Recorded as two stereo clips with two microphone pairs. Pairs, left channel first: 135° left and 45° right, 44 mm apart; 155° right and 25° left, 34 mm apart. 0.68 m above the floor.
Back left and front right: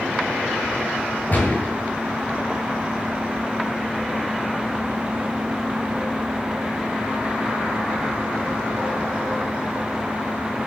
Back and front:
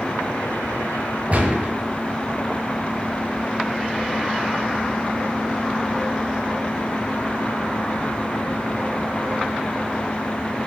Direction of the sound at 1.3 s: 80° left.